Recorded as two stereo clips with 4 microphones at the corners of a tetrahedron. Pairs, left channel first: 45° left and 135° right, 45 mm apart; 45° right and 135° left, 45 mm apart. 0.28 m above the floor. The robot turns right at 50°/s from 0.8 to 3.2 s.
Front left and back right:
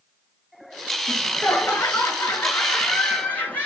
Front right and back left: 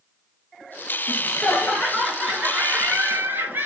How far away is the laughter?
About 4.5 m.